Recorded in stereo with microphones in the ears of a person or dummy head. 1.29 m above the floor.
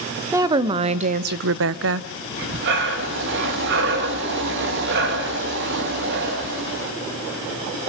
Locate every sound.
0.3 s a woman speaking: 15° right (ahead or behind), 0.9 m; by 2.1 s 70° right (ahead or behind), 0.7 m
2.3 s breathing: 65° right (ahead or behind), 1.7 m